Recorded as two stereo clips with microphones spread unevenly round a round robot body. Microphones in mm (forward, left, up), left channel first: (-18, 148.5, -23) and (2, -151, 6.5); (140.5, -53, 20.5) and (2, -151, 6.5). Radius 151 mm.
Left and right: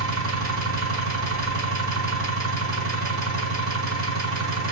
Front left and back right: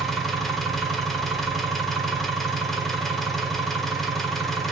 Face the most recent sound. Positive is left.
turn(degrees=-60)